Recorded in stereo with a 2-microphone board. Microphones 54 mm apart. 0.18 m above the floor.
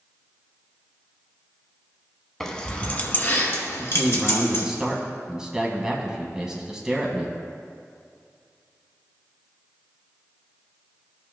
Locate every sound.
2.4 s keys jangling: 10° left (ahead or behind), 0.8 m; by 4.7 s 60° left (ahead or behind), 1.7 m
3.8 s a man speaking: 15° right (ahead or behind), 1.1 m